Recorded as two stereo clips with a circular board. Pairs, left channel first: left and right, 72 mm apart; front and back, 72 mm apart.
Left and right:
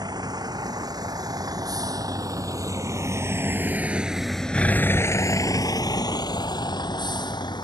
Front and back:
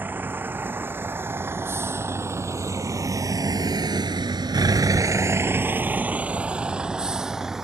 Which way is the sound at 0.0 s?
115° right.